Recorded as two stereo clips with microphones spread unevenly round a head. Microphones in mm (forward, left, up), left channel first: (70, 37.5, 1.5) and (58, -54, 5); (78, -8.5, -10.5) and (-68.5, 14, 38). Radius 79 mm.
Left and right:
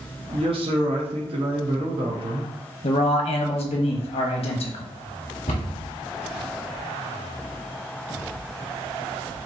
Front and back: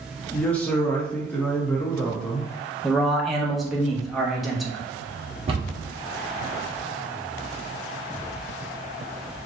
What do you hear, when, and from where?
0.3 s a man speaking: 100° right, 1.0 m
2.8 s a man speaking: 85° left, 1.1 m
5.5 s a cupboard door: 120° left, 1.4 m